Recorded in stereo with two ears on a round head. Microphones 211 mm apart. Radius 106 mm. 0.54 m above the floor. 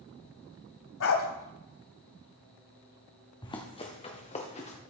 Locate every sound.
1.0 s a dog barking: 60° left (ahead or behind), 1.3 m
3.4 s running footsteps: 20° left (ahead or behind), 1.8 m; by 4.8 s 30° left (ahead or behind), 2.5 m